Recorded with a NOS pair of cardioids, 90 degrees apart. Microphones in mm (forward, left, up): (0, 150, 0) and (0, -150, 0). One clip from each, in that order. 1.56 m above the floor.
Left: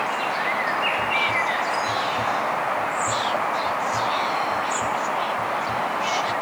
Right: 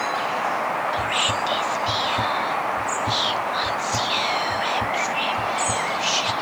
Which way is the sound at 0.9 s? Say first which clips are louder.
Left 1 dB; 45° right.